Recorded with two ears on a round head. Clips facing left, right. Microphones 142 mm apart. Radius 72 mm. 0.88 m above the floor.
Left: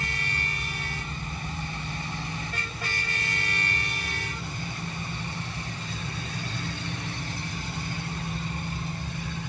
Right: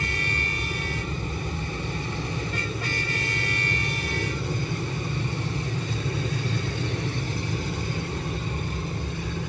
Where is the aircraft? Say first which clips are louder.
Right 4 dB; 55° right (ahead or behind).